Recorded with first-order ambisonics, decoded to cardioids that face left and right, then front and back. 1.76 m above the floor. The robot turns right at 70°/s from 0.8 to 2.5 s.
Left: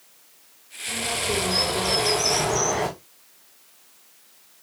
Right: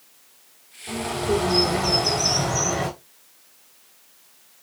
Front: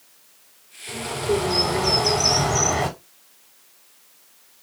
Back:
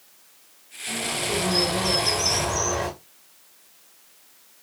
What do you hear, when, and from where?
0.9 s a bird: 115° right, 5.5 m; by 2.9 s 5° right, 5.5 m